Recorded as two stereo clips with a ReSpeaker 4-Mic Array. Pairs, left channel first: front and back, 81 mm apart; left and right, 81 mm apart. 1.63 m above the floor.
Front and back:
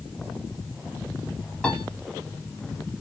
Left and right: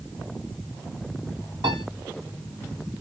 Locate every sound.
1.6 s a piano: 85° right, 2.5 m